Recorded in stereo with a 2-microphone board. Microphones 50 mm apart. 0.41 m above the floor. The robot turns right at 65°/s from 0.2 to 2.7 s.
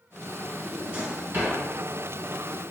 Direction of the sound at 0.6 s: 5° right (ahead or behind).